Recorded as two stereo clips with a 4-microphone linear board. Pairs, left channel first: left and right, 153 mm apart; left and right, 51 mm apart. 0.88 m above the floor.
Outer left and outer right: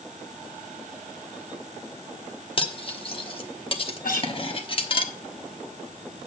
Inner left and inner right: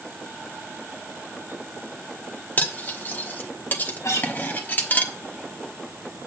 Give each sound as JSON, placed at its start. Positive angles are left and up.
{"t": 2.6, "sound": "cutlery clinking", "side_deg": 40, "distance_m": 1.0}
{"t": 4.0, "sound": "a guitar", "side_deg": 75, "distance_m": 3.0}